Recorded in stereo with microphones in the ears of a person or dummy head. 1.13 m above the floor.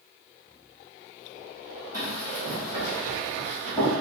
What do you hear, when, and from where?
1.9 s running footsteps: 20° right (ahead or behind), 1.6 m; by 3.9 s 5° right (ahead or behind), 3 m